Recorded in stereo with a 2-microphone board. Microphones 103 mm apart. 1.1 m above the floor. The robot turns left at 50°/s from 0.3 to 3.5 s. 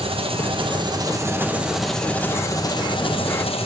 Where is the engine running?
105° right, 0.9 m; by 3.7 s 95° left, 0.9 m.